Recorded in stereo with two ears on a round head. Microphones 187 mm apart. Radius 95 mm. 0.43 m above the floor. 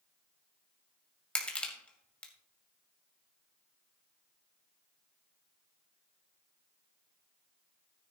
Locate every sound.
1.4 s crushing: 5° left (ahead or behind), 2 m